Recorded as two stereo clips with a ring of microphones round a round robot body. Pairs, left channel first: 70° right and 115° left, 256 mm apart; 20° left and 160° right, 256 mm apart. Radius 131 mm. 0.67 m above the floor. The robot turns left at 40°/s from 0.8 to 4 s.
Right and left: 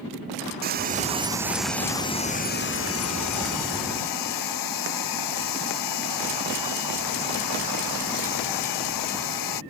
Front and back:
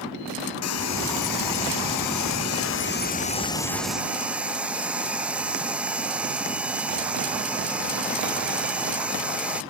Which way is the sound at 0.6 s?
55° left.